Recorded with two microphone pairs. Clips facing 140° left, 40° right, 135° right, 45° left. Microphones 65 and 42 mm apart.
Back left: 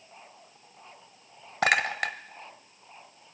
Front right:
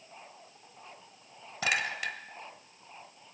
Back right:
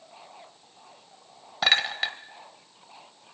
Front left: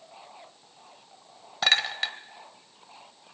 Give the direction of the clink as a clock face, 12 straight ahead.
7 o'clock.